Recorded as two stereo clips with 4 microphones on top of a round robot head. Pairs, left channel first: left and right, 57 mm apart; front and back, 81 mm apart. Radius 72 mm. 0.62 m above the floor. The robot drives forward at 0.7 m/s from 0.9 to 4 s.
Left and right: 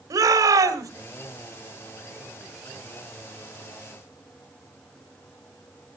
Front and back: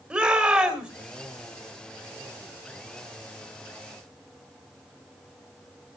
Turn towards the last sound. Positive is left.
turn(degrees=-135)